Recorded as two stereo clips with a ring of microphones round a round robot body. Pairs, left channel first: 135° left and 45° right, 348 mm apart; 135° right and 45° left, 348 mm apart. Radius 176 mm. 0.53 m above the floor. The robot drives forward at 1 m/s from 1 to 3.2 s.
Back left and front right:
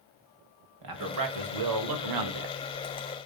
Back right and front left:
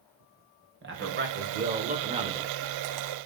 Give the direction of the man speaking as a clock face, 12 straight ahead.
12 o'clock.